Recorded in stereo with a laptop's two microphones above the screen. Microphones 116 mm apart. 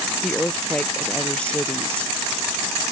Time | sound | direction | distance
0.2 | a woman speaking | 10° left (ahead or behind) | ?